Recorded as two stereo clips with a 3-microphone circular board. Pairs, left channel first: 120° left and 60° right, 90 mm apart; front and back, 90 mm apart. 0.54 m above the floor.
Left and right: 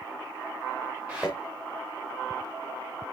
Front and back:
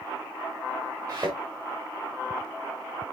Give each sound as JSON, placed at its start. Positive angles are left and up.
{"t": 1.1, "sound": "a thud", "azimuth_deg": -140, "distance_m": 5.5}